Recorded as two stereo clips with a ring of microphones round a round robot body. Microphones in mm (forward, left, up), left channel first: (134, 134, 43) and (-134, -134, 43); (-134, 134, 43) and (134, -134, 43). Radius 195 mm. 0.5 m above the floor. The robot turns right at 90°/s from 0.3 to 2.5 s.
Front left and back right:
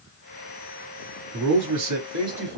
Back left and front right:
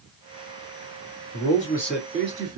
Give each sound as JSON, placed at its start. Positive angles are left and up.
{"t": 1.3, "sound": "a man speaking", "azimuth_deg": 175, "distance_m": 1.9}